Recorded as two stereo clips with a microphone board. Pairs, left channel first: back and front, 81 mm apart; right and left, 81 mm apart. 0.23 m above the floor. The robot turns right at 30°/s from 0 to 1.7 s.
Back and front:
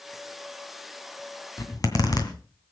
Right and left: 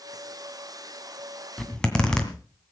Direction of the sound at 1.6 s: 170° right.